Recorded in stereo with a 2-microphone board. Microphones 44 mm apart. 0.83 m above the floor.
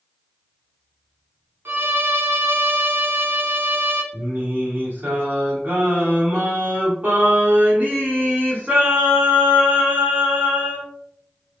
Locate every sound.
1.6 s a violin: 65° right (ahead or behind), 0.8 m
4.1 s singing: 45° right (ahead or behind), 1.5 m